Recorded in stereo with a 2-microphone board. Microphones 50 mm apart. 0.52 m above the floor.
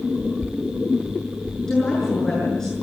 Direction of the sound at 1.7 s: 10° left (ahead or behind).